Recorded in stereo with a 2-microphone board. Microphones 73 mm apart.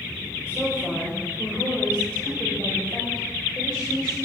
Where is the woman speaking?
5° right (ahead or behind), 5.5 m; by 4.2 s 10° left (ahead or behind), 7 m.